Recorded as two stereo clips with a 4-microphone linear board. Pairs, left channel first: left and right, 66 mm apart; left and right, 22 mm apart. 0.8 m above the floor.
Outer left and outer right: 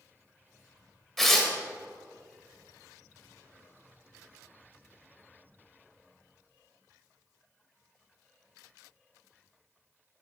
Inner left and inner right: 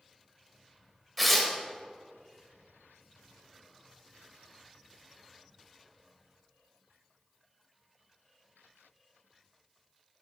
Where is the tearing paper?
Centre (ahead or behind), 0.9 m.